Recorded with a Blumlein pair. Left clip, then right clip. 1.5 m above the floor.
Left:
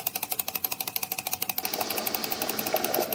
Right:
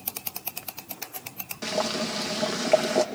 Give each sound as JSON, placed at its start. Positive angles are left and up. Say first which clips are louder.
{"t": 1.6, "sound": "boiling", "louder": "right 6 dB", "azimuth_deg": -50, "distance_m": 2.0}